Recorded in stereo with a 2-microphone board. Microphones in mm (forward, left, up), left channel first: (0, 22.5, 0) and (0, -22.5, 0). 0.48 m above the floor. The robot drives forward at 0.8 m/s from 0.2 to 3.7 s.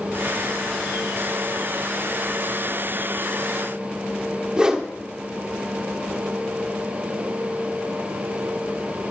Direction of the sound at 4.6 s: 20° right (ahead or behind).